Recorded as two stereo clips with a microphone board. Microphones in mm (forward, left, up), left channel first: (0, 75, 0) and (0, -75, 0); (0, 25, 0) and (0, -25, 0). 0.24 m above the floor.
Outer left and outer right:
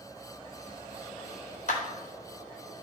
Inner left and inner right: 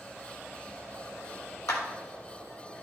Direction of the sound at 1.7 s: 65° left (ahead or behind).